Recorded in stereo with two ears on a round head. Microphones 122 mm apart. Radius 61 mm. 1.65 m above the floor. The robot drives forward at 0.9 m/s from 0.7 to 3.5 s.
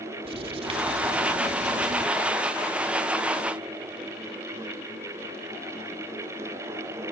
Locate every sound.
0.2 s writing: 45° right (ahead or behind), 2.5 m; by 2.0 s 60° right (ahead or behind), 2.0 m